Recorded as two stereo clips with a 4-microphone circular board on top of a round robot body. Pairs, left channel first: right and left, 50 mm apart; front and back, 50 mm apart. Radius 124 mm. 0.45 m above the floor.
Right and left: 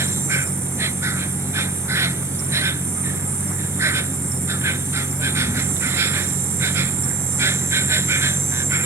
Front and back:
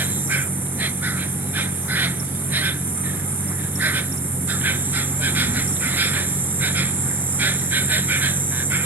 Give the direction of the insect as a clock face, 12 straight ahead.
8 o'clock.